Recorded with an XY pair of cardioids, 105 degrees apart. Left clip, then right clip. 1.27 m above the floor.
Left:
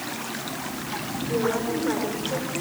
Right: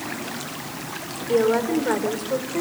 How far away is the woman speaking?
About 4.5 m.